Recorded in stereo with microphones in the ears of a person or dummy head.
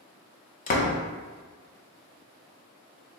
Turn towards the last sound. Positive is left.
turn(degrees=40)  # may be behind; listen again after turning